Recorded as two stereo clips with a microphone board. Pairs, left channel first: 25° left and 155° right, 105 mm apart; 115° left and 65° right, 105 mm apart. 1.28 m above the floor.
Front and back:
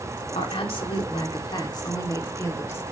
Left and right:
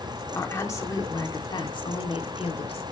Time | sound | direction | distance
0.3 | a woman speaking | 45° left | 3 m